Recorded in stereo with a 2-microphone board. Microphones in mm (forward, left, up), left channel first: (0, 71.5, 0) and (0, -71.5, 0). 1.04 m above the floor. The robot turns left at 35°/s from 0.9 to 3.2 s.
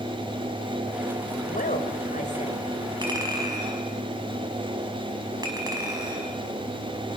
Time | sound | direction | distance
1.5 | a woman speaking | 90° left | 4 m
3.0 | a clink | 35° right (ahead or behind) | 5 m